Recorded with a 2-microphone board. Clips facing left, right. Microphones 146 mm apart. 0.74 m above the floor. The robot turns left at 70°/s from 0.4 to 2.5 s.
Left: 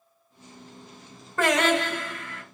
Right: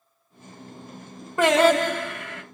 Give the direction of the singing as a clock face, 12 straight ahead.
1 o'clock.